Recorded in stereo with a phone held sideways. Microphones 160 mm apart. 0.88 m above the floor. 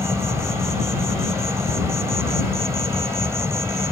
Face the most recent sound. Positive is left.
turn(degrees=-20)  # may be behind; listen again after turning